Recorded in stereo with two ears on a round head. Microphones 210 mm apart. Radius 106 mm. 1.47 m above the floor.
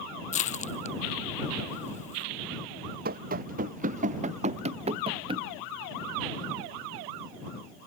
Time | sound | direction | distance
0.3 | crushing | 30° left (ahead or behind) | ?
3.0 | running footsteps | 40° right (ahead or behind) | ?